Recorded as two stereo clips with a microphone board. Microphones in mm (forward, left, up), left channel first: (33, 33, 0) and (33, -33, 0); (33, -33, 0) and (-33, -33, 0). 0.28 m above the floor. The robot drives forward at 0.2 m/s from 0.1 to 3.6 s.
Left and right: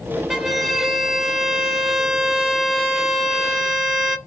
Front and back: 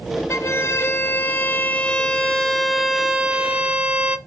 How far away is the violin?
About 0.7 m.